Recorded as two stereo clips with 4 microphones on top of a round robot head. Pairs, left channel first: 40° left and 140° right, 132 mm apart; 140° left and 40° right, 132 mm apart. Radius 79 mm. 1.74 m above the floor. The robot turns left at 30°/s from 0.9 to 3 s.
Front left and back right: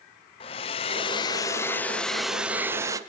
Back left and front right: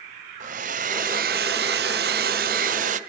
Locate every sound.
0.4 s a hair dryer: 10° right, 0.7 m; by 3.0 s 70° right, 0.7 m